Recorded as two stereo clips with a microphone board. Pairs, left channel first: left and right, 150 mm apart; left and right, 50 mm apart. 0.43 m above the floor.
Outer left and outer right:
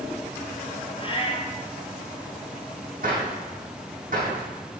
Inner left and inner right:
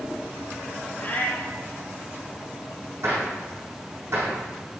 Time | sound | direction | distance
1.0 | a cat meowing | 35° left (ahead or behind) | 1.8 m
3.0 | a gunshot | 60° right (ahead or behind) | 5.5 m